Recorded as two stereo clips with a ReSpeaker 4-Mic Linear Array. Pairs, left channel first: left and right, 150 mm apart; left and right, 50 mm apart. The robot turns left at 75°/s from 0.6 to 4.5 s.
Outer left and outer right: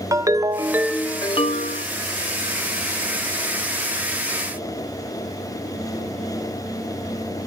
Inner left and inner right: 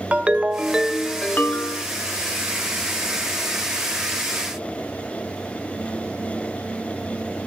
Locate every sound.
0.1 s a ringtone: 160° right, 0.7 m; by 1.9 s 110° left, 0.7 m